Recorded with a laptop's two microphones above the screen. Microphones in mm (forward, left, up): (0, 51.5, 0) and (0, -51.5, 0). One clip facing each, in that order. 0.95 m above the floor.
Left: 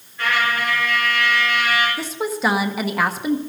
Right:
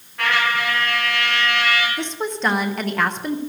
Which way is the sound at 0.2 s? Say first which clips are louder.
Even; 70° right (ahead or behind).